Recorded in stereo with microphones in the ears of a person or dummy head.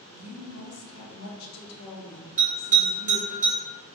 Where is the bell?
5° left (ahead or behind), 1.0 m.